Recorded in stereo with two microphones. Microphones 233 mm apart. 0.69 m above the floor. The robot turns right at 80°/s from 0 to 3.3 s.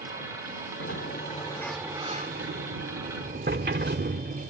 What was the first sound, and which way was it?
A sliding door, 105° left.